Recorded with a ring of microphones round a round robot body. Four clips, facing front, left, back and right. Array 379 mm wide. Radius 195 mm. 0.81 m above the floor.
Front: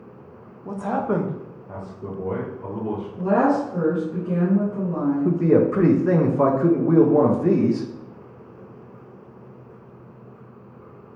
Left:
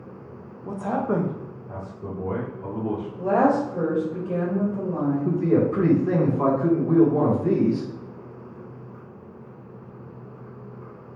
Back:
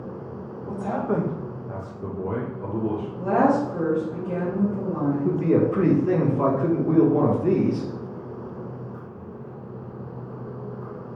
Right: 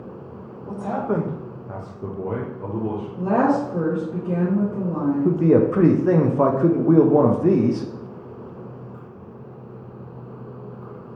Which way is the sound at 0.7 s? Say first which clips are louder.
Even, front 2 dB; 35° left.